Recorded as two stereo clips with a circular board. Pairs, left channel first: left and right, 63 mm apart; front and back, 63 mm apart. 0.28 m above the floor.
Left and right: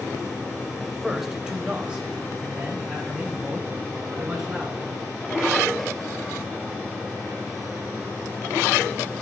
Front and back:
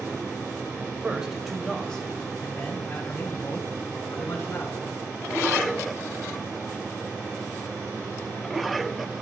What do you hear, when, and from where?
0.8 s a man speaking: 175° left, 1.0 m; by 4.9 s 30° right, 2.5 m